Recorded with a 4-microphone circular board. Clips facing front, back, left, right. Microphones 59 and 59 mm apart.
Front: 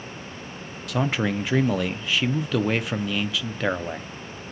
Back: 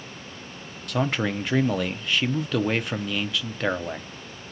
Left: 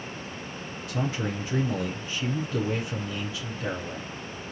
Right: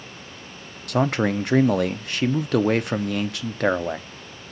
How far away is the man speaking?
About 0.6 m.